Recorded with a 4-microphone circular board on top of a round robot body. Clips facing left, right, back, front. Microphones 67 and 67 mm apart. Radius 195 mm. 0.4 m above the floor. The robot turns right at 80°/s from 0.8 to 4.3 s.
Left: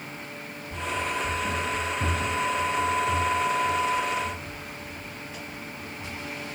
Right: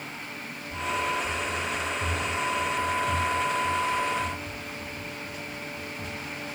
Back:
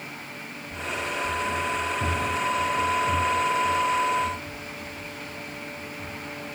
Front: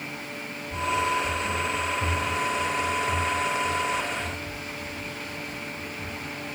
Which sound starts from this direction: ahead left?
Running footsteps, at 0.7 s.